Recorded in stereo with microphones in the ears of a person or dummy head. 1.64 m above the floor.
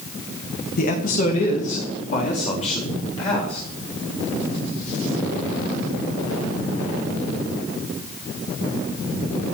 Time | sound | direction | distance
0.8 | a man speaking | 55° left (ahead or behind) | 2 m